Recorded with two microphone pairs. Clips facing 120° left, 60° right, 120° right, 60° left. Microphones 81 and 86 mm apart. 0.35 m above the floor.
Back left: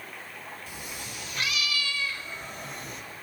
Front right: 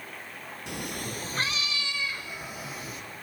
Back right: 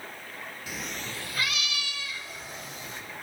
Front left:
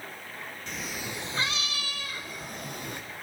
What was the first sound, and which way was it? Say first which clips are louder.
A cat meowing: front right 5 dB, front left 1 dB; 40° right.